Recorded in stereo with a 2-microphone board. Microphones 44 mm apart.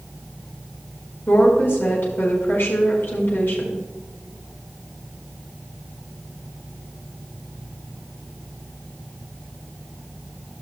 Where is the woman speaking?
60° left (ahead or behind), 4.5 m.